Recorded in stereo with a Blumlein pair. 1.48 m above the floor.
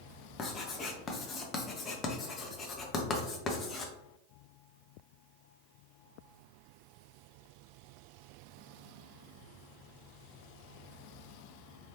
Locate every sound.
0.4 s writing: 20° left, 0.7 m